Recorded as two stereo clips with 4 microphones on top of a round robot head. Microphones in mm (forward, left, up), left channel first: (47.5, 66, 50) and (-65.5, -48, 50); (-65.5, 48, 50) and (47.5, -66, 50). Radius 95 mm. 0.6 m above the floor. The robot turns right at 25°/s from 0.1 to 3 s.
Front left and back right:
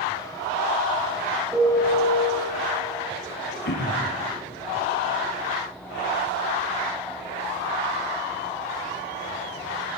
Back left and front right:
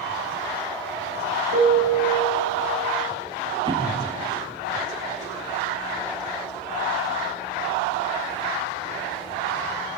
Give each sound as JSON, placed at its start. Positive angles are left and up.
{"t": 1.5, "sound": "a piano", "azimuth_deg": -60, "distance_m": 9.5}
{"t": 3.6, "sound": "throat clearing", "azimuth_deg": 20, "distance_m": 4.0}